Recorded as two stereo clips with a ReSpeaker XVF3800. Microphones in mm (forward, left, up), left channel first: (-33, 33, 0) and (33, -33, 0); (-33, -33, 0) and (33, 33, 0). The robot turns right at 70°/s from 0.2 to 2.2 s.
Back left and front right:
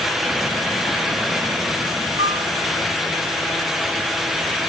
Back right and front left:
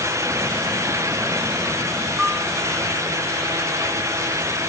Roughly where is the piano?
Ahead right.